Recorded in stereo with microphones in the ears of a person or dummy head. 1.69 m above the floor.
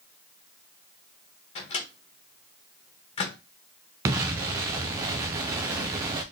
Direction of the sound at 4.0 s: 15° right (ahead or behind).